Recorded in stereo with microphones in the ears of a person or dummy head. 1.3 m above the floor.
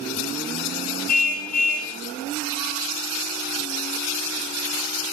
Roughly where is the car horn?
Left.